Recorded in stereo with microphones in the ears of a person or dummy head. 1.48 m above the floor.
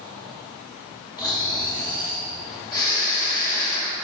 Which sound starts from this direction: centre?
Snoring, at 1.2 s.